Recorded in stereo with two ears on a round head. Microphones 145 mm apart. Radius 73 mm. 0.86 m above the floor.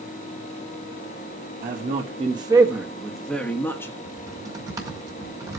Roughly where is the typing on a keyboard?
Right.